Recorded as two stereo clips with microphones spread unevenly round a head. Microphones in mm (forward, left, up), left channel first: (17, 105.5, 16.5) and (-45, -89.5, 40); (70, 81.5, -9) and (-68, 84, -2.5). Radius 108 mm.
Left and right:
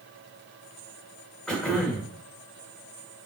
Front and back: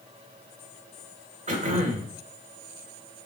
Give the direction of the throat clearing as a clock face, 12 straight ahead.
7 o'clock.